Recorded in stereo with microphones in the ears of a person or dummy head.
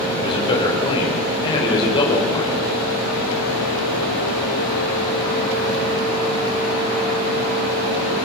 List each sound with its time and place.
0.2 s a man speaking: 25° left (ahead or behind), 5 m